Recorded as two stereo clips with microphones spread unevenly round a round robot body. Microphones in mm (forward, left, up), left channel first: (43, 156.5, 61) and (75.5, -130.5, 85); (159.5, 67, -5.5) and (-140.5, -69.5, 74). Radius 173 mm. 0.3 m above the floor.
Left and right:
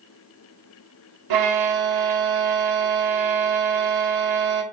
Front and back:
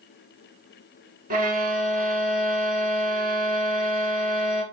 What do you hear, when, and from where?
1.3 s a violin: 85° right, 0.7 m